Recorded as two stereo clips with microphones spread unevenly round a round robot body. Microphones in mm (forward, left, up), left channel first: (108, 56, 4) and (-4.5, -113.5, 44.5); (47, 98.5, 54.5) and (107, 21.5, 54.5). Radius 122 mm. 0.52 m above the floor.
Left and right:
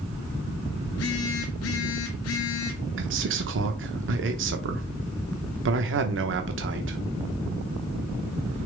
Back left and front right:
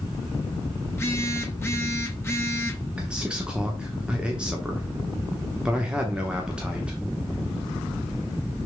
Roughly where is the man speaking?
Behind right.